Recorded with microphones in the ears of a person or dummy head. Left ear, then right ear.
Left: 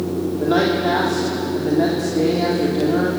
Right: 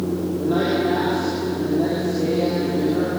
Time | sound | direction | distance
0.4 | a man speaking | 55° left (ahead or behind) | 3.5 m